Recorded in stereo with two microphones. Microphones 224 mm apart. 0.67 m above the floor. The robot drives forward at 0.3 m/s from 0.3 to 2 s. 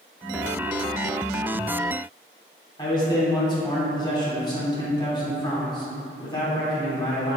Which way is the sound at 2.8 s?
20° left (ahead or behind).